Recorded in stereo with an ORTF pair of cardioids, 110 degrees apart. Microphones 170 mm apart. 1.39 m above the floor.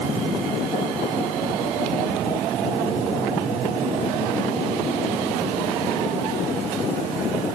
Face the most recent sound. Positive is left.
No sound to turn to.